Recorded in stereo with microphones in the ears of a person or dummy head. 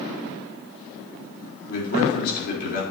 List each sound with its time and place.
1.7 s a man speaking: 50° left (ahead or behind), 4 m